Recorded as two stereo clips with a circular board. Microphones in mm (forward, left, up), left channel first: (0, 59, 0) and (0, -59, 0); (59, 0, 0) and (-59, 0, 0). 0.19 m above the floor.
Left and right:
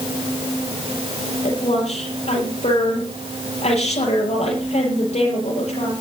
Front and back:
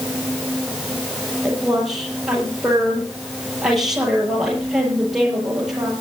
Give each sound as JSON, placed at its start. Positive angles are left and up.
{"t": 1.4, "sound": "a woman speaking", "azimuth_deg": 95, "distance_m": 6.0}